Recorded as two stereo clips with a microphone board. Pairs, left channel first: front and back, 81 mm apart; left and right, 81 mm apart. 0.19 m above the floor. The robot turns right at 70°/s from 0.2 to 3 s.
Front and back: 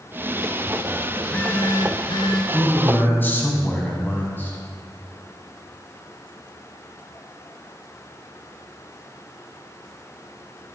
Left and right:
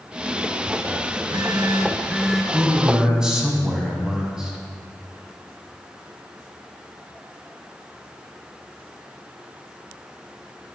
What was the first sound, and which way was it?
A phone buzzing, 85° right.